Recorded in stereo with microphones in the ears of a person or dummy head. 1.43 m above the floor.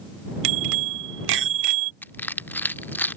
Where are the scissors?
I don't hear scissors.